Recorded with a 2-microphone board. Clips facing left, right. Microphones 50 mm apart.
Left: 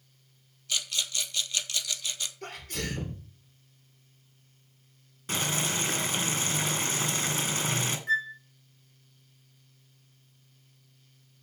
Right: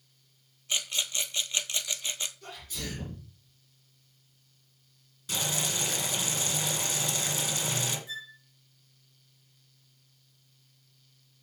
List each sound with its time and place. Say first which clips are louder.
0.7 s a rattle: even; 25° right (ahead or behind), 0.9 m
2.4 s a sneeze: left 4 dB; 55° left (ahead or behind), 3 m
5.3 s boiling: left 3 dB; 40° left (ahead or behind), 2.5 m
8.1 s a flute: left 14 dB; 55° left (ahead or behind), 1.0 m